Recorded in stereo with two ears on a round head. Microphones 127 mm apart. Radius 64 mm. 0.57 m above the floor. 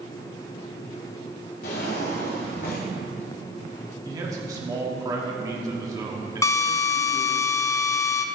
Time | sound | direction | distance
1.6 | a drawer | 65° left (ahead or behind) | 2 m
4.0 | a man speaking | 25° right (ahead or behind) | 1.4 m
6.4 | a drill | 20° left (ahead or behind) | 0.5 m